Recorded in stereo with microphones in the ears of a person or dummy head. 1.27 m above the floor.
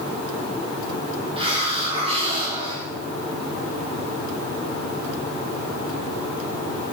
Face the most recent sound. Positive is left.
turn(degrees=-20)  # may be behind; listen again after turning